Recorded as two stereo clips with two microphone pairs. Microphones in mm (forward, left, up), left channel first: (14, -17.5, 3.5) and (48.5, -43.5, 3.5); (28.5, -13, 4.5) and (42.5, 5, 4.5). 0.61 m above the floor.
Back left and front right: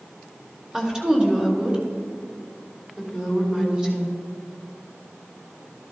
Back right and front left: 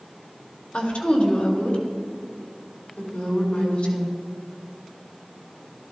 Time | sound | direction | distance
0.7 | a woman speaking | 110° right | 2 m